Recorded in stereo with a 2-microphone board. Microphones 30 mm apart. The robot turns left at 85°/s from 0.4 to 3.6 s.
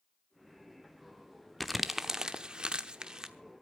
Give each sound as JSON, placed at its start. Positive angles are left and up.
{"t": 1.6, "sound": "crumpling", "side_deg": 5, "distance_m": 0.8}